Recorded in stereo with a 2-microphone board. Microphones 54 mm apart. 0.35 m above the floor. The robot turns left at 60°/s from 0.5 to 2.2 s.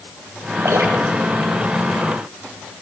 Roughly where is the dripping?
Right.